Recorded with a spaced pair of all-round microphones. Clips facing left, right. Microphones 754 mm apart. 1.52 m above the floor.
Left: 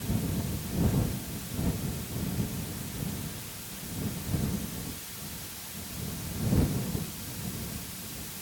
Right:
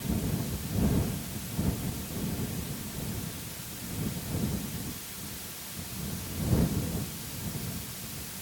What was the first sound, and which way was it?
Only background noise.